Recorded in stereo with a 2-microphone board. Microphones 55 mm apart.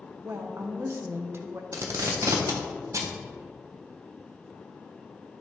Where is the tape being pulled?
75° right (ahead or behind), 0.9 m.